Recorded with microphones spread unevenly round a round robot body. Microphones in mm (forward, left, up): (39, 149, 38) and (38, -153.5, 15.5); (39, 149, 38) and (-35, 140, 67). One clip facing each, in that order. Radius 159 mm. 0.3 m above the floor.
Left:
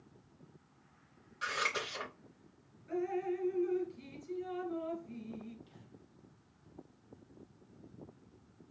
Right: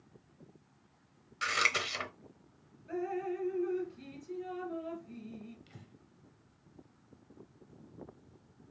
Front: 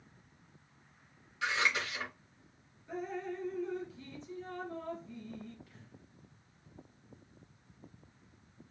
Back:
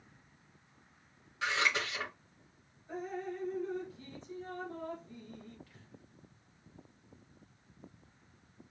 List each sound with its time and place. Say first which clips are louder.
1.4 s scissors: right 1 dB, even; 100° right, 1.0 m
2.9 s dripping: left 1 dB, even; 5° right, 2.5 m
5.7 s breathing: right 1 dB, even; 65° right, 1.0 m